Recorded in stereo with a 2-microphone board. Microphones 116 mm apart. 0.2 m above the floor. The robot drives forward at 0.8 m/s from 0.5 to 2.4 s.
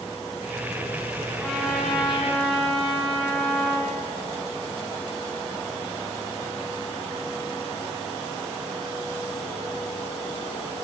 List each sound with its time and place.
1.4 s a trumpet: 5° right (ahead or behind), 8 m